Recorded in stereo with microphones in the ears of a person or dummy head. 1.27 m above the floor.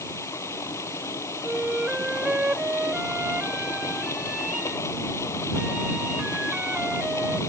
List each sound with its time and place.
0.0 s running water: 15° left (ahead or behind)
1.4 s a flute: 5° right (ahead or behind)